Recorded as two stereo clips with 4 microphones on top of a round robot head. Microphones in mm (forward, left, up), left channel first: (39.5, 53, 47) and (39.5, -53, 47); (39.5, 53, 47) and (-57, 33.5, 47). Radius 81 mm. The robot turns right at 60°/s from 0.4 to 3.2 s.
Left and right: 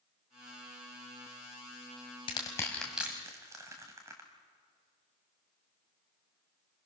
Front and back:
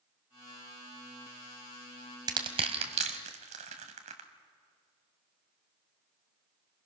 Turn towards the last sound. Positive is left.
turn(degrees=-160)